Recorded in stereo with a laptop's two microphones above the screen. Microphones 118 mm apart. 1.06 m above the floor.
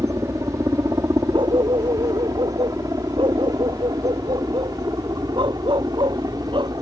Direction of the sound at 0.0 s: 25° right (ahead or behind).